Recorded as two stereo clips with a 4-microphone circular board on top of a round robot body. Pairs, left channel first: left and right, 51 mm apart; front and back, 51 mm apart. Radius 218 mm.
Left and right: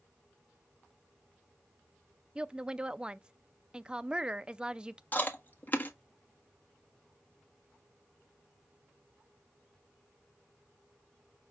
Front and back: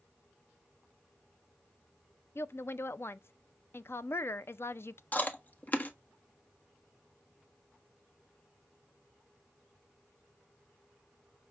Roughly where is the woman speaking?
Ahead.